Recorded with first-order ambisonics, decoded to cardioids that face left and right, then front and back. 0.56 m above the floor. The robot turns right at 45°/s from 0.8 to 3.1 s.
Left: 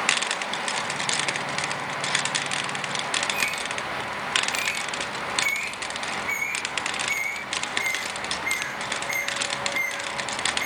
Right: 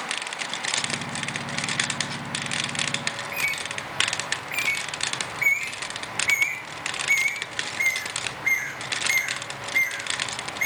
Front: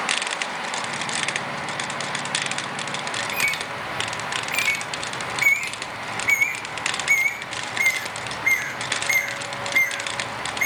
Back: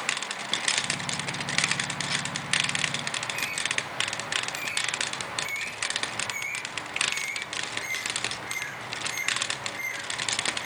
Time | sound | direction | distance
3.1 | a bird | 15° right | 6.5 m